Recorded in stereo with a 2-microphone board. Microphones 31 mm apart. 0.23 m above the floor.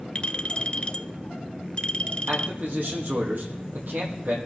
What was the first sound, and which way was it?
A clink, 40° left (ahead or behind).